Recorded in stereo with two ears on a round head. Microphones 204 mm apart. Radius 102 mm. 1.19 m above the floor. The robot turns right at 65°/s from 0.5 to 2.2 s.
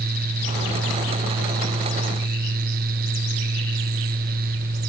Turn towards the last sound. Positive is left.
No sound to turn to.